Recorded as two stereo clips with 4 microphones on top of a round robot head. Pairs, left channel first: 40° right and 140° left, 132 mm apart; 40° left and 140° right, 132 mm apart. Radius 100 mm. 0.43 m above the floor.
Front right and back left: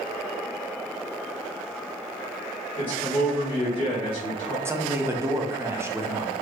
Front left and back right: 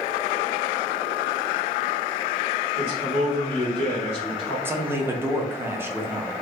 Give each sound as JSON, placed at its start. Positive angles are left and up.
{"t": 2.8, "sound": "a man speaking", "azimuth_deg": -115, "distance_m": 1.9}
{"t": 4.7, "sound": "a man speaking", "azimuth_deg": 175, "distance_m": 0.7}